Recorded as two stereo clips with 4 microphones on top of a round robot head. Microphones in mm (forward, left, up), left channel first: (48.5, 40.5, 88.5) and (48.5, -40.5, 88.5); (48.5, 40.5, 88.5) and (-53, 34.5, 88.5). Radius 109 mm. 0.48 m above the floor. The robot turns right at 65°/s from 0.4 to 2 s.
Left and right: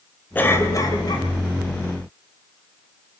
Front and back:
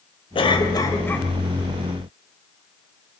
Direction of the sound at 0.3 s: 25° left.